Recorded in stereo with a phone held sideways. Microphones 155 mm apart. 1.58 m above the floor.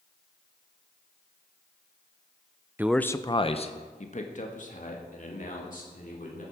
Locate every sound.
2.8 s a man speaking: 15° right (ahead or behind), 0.5 m; by 6.4 s 55° left (ahead or behind), 4 m